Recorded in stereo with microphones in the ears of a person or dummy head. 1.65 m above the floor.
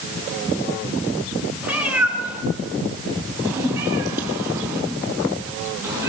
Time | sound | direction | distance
1.6 | a cat meowing | 10° right (ahead or behind) | 3.5 m